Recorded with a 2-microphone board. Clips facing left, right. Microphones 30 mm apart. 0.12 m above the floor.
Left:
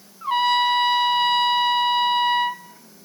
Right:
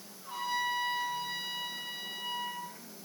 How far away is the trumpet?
About 1.1 m.